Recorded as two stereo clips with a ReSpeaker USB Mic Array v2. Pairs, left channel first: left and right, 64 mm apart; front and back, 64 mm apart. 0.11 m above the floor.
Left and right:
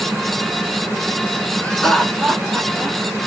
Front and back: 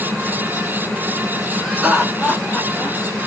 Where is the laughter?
135° left, 1.1 m; by 3.0 s 45° right, 1.2 m.